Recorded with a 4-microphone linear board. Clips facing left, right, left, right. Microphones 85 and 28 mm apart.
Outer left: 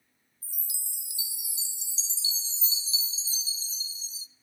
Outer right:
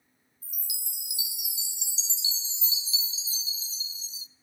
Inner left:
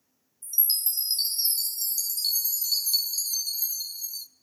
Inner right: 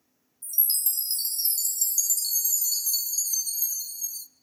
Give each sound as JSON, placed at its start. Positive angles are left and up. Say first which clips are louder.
{"t": 0.4, "sound": "a chime", "louder": "outer right 3 dB, inner left 2 dB", "side_deg": 35, "distance_m": 0.6}